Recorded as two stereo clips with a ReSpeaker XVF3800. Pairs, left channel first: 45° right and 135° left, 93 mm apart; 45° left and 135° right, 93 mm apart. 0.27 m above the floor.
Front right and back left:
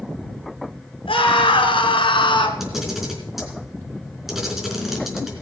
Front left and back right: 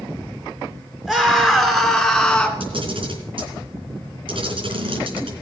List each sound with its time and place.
1.1 s a scream: 50° right, 4 m; by 2.5 s 30° right, 2.5 m
2.6 s a camera shutter: 140° right, 4 m